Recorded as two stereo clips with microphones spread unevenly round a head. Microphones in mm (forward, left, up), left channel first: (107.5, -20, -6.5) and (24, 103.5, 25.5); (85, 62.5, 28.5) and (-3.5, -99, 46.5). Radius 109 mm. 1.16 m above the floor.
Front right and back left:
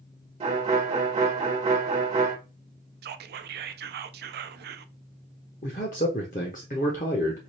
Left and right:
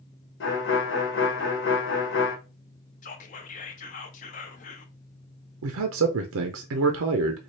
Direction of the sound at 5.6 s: 110° right.